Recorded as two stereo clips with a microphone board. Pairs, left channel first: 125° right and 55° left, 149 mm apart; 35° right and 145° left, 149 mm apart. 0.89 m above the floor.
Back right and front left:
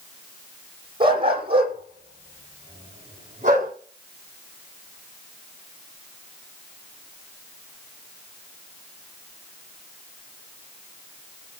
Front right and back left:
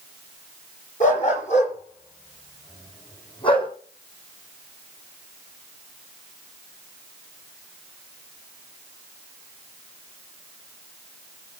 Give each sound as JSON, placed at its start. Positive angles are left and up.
{"t": 1.0, "sound": "a dog barking", "azimuth_deg": 0, "distance_m": 8.5}